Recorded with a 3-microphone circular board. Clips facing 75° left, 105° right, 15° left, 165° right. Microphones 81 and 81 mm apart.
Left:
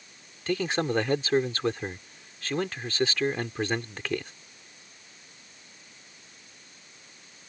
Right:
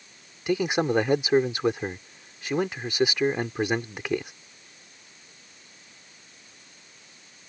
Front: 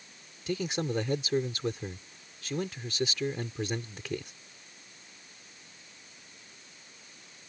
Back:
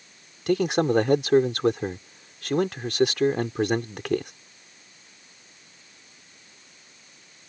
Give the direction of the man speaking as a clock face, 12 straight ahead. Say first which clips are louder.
Right 3 dB, back 10 dB; 6 o'clock.